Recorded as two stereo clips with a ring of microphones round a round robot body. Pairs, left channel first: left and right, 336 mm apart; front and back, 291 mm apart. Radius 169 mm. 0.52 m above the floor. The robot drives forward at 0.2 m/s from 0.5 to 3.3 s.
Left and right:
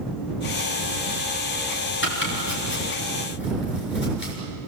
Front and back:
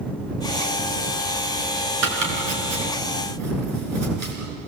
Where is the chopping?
150° left, 6 m.